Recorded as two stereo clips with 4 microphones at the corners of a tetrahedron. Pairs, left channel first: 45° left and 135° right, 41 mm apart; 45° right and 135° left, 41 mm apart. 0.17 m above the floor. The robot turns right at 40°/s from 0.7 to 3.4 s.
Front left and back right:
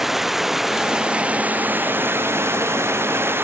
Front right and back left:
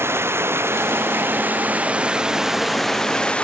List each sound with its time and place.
0.0 s running water: 145° left; by 3.4 s 110° right